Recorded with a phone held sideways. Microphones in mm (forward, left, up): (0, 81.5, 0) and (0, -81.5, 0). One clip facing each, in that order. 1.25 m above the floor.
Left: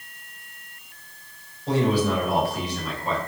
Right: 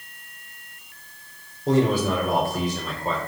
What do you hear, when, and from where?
1.7 s a man speaking: 45° right (ahead or behind), 1.3 m